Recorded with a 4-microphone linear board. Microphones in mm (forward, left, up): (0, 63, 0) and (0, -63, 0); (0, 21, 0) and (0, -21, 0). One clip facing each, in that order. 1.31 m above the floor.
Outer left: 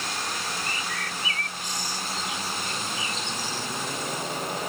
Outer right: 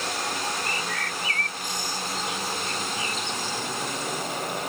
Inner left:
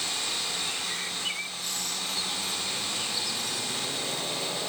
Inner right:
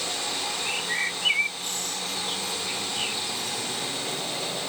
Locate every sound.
0.6 s a bird: 55° right (ahead or behind)